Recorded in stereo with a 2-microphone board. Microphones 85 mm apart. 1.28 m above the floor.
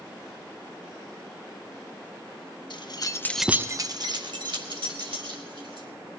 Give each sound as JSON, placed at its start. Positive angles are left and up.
{"t": 2.7, "sound": "keys jangling", "side_deg": 65, "distance_m": 1.1}